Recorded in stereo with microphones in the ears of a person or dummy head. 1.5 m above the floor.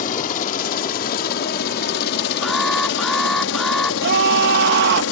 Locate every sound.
0.0 s a helicopter: 45° left (ahead or behind); by 5.1 s 70° left (ahead or behind)
2.4 s an alarm: centre (ahead or behind)
4.0 s a scream: 60° right (ahead or behind)